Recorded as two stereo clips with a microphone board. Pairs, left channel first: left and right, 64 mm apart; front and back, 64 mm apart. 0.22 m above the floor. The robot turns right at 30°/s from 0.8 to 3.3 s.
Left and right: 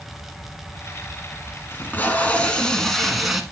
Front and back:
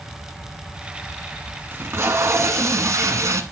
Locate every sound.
1.7 s tape being pulled: 135° left, 1.2 m; by 3.4 s 175° right, 1.2 m